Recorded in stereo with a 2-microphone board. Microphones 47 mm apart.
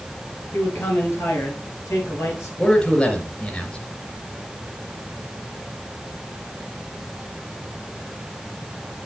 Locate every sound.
0.5 s a man speaking: 70° left (ahead or behind), 5 m; by 2.5 s 75° left (ahead or behind), 5.5 m
2.6 s a man speaking: 20° left (ahead or behind), 3 m